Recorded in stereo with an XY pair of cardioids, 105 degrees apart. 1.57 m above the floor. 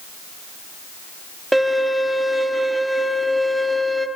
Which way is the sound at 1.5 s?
15° right.